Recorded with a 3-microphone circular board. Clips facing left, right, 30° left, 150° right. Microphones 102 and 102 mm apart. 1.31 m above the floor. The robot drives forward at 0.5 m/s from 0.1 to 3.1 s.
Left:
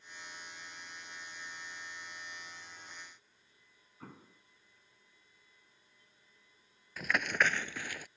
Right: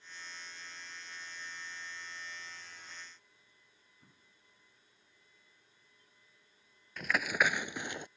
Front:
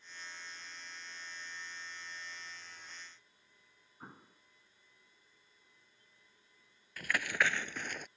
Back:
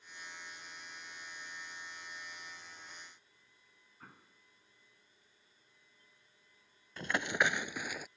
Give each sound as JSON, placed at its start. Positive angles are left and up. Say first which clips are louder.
{"t": 4.0, "sound": "an explosion", "louder": "left 17 dB, front 5 dB", "azimuth_deg": 95}
{"t": 7.0, "sound": "running footsteps", "louder": "even, back 1 dB", "azimuth_deg": 175}